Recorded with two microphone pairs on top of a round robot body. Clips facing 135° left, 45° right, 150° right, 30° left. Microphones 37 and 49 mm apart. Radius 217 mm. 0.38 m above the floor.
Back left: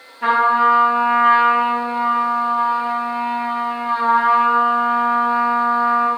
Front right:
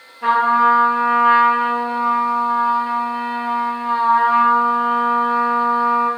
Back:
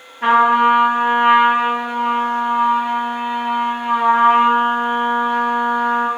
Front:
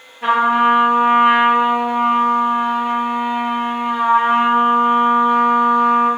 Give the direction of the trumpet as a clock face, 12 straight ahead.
6 o'clock.